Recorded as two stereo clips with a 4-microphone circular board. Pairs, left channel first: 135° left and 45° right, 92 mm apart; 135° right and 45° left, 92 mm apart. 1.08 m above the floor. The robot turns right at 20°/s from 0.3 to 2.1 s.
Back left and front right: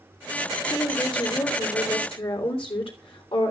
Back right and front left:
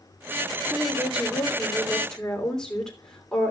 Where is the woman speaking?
115° left, 3 m; by 3.5 s 140° left, 3 m.